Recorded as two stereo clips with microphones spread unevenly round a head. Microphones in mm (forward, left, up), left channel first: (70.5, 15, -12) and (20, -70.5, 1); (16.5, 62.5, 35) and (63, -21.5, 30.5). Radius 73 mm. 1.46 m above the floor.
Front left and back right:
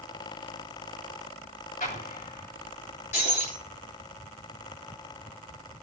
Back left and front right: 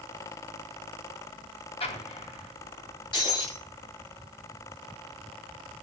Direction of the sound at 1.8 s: 100° left.